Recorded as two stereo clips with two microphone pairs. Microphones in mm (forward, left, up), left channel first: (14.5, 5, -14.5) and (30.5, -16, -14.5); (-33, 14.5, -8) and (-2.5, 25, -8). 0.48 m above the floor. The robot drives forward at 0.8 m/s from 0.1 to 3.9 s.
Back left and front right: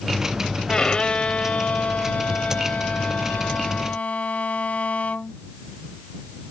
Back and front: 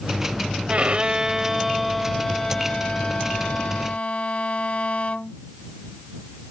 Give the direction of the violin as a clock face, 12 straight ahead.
10 o'clock.